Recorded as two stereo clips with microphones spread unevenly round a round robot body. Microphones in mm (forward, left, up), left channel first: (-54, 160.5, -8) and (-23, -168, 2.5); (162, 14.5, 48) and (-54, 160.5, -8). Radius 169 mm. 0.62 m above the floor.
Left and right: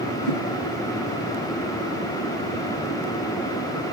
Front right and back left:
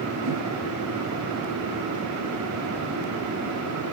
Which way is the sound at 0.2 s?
135° left.